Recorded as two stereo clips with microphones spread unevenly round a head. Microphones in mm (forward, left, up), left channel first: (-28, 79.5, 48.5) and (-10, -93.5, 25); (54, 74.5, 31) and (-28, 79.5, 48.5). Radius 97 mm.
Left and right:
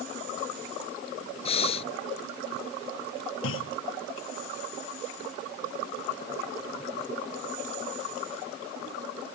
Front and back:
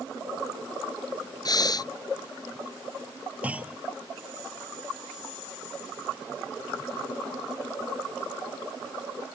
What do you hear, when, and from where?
1.4 s breathing: 35° left
3.4 s a clunk: 105° left